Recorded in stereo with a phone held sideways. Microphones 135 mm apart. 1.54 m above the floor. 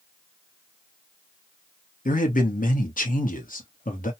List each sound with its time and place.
2.0 s a man speaking: 85° left, 0.9 m